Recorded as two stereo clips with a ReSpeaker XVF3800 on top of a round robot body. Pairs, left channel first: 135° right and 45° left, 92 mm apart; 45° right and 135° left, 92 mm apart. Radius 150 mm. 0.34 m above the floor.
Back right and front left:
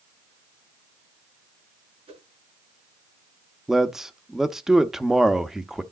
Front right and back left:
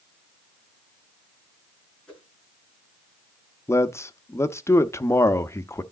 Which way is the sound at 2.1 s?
35° left.